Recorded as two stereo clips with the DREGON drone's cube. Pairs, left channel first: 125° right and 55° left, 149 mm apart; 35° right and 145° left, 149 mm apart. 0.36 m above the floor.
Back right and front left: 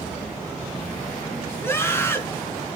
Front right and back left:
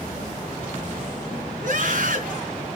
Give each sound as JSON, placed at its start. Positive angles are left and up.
{"t": 1.6, "sound": "a scream", "azimuth_deg": 165, "distance_m": 4.0}